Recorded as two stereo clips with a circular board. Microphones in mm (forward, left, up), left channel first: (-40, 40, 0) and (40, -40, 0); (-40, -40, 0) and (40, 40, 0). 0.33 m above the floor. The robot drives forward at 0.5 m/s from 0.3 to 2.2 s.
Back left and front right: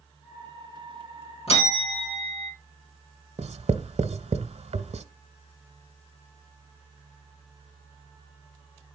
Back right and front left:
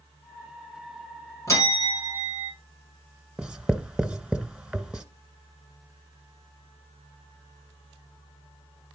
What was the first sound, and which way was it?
A bell, 165° left.